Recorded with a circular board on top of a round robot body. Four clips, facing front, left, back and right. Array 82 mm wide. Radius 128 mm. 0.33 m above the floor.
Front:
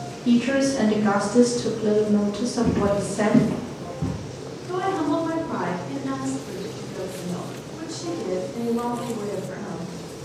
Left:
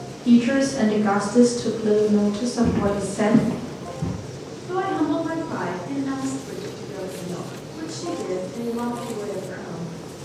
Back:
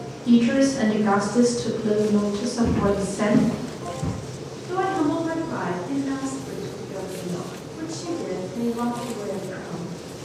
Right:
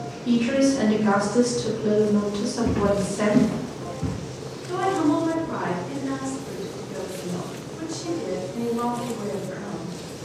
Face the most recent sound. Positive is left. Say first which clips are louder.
# right 1 dB, back 1 dB
turn(degrees=70)